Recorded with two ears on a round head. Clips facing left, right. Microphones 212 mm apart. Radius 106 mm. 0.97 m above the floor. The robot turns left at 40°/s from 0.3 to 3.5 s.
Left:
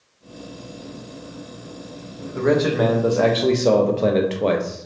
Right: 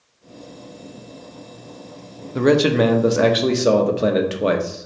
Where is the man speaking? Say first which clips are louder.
Right 3 dB; 120° right, 0.6 m; by 4.9 s 170° right, 0.6 m.